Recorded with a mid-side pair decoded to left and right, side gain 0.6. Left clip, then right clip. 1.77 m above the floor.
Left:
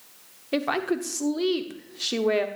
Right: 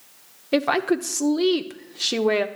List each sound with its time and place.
0.5 s a woman speaking: 20° right, 0.8 m